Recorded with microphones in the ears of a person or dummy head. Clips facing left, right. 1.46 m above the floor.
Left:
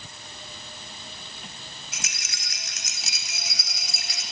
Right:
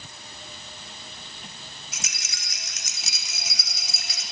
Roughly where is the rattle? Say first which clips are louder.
Left 1 dB; right.